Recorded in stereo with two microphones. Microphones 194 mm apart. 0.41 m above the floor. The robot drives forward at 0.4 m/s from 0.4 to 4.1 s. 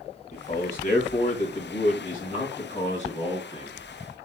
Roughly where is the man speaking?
Left.